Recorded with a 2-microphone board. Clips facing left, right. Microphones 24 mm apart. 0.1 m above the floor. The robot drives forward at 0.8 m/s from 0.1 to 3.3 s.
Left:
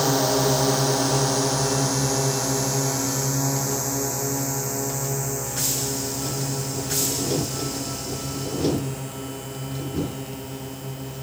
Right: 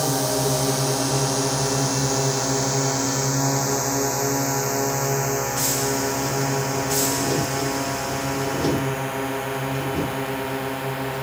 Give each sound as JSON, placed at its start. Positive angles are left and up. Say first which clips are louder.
{"t": 0.0, "sound": "a drone", "louder": "left 2 dB", "side_deg": 15}